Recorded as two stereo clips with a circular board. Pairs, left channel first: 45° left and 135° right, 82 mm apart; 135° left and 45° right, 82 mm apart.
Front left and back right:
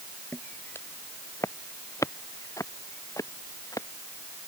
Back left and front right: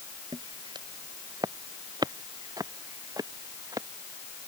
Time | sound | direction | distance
0.3 | footsteps | 20° right | ?